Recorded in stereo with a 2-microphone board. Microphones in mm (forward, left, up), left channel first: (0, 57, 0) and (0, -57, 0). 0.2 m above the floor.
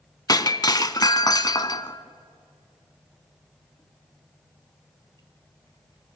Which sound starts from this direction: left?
Breaking glass, at 0.3 s.